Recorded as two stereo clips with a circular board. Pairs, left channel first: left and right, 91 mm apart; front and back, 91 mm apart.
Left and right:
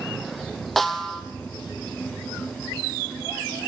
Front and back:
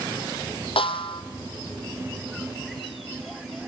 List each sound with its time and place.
0.8 s a snare drum: straight ahead, 1.2 m